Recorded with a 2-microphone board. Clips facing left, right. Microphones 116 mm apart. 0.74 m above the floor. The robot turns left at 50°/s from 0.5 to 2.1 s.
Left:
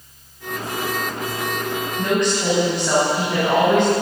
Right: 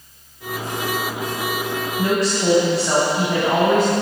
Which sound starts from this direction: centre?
A woman speaking, at 2.0 s.